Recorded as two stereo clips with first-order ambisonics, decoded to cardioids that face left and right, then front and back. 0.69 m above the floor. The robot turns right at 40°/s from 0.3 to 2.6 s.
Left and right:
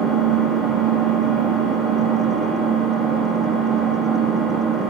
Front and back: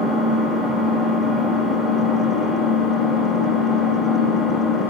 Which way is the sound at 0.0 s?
165° right.